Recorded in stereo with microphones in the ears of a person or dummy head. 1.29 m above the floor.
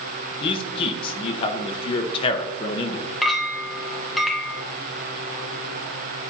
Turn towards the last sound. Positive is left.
turn(degrees=0)  # may be behind; listen again after turning